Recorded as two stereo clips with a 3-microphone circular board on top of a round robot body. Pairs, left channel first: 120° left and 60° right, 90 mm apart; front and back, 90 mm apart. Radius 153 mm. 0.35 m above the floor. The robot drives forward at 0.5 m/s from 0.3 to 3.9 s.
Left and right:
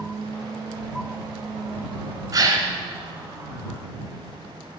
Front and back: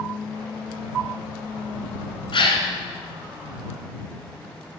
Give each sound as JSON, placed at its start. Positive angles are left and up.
{"t": 2.3, "sound": "a gasp", "azimuth_deg": -10, "distance_m": 2.5}